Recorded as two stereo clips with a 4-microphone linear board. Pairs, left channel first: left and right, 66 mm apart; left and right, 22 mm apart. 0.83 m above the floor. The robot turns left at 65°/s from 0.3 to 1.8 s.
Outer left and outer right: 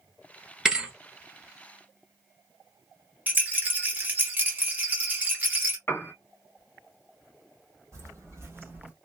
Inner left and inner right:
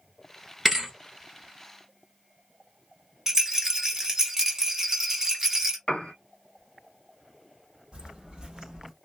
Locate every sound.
0.7 s a thud: 10° right (ahead or behind), 1.0 m; by 0.9 s 20° right (ahead or behind), 1.0 m
3.3 s a rattle: 25° right (ahead or behind), 1.0 m
5.9 s a piano: 35° left (ahead or behind), 0.8 m
7.9 s footsteps: 45° right (ahead or behind), 1.7 m; by 8.9 s 20° right (ahead or behind), 0.8 m